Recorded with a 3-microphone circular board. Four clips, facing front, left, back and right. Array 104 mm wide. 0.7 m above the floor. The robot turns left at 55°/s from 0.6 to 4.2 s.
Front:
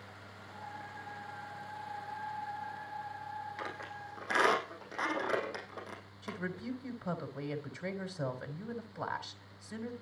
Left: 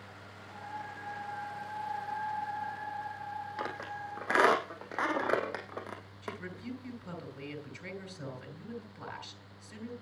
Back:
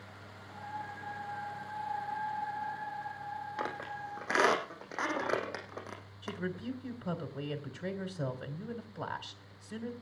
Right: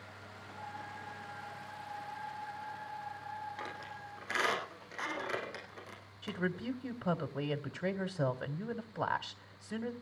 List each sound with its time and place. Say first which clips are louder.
3.6 s a squeak: left 6 dB, back 4 dB; 145° left, 4 m; by 6.4 s 110° left, 4 m
6.2 s a woman speaking: right 6 dB, back 2 dB; 85° right, 2.5 m